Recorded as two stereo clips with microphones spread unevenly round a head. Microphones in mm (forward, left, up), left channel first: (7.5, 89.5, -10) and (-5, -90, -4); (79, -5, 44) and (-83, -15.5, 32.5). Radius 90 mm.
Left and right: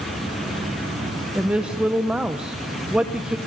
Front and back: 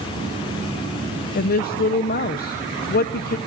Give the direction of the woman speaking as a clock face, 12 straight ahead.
12 o'clock.